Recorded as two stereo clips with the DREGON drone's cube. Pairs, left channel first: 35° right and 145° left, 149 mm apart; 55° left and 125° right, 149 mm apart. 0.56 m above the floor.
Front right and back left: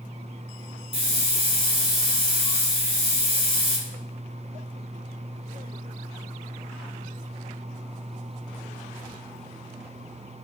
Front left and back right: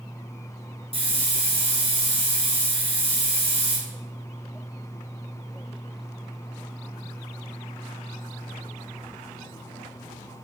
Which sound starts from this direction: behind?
A hiss, at 0.9 s.